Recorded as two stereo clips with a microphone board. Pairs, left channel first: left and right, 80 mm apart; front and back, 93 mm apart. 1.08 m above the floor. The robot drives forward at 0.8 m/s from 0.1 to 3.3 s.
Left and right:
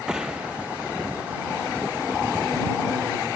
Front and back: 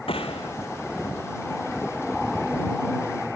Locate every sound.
0.1 s a gunshot: 10° right